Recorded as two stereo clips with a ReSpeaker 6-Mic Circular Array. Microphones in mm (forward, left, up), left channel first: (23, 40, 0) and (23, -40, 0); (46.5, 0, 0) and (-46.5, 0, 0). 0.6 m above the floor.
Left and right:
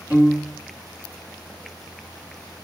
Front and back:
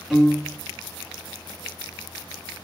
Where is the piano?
105° right, 1.3 m.